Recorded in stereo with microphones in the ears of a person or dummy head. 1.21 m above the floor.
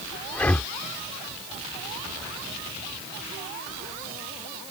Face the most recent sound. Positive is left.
turn(degrees=0)  # may be behind; listen again after turning